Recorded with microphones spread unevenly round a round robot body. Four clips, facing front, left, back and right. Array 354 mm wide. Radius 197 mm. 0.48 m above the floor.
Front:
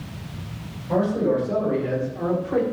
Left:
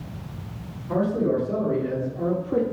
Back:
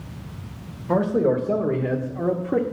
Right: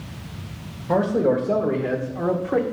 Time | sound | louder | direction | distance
0.9 | a man speaking | right 3 dB, back 1 dB | straight behind | 2 m